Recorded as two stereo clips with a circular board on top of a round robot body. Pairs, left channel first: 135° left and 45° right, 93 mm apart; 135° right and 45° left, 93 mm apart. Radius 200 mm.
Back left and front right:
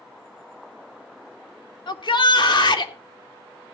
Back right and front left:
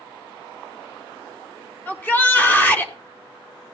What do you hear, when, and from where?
1.9 s a shout: 155° left, 2.5 m